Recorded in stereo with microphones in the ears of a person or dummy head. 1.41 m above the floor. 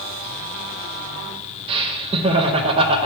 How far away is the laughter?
About 0.6 m.